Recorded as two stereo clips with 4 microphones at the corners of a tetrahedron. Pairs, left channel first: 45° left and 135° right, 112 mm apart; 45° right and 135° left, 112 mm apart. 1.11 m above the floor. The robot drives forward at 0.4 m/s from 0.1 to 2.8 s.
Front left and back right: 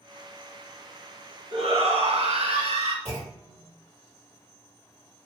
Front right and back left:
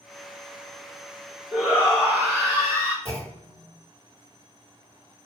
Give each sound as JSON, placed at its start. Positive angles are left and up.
{"t": 1.5, "sound": "a shout", "azimuth_deg": -140, "distance_m": 1.2}
{"t": 3.0, "sound": "a clunk", "azimuth_deg": 155, "distance_m": 2.5}